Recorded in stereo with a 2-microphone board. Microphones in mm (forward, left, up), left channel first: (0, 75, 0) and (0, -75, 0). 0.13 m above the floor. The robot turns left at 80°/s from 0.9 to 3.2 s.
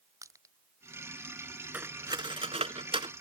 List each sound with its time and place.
0.2 s crushing: 20° right (ahead or behind)
1.7 s cutlery clinking: 10° right (ahead or behind); by 3.1 s 30° right (ahead or behind)